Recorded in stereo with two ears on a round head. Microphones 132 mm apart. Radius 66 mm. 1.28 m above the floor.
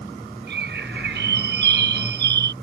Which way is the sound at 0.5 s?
75° right (ahead or behind).